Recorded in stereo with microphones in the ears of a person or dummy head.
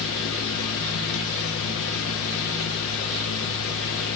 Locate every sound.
0.0 s a fan: 70° left (ahead or behind), 0.9 m